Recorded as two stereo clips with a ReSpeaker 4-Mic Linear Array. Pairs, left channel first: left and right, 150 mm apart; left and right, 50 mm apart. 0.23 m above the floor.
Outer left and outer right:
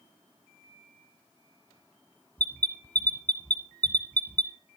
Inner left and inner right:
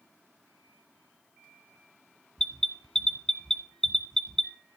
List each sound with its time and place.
2.4 s an alarm: 10° left (ahead or behind), 1.4 m